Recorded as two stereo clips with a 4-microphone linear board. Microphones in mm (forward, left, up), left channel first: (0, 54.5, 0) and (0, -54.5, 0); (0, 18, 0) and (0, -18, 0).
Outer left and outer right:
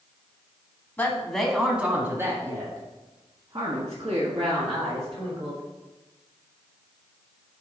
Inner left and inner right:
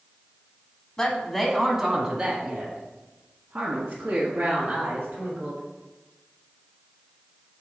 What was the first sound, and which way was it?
A woman speaking, 15° left (ahead or behind).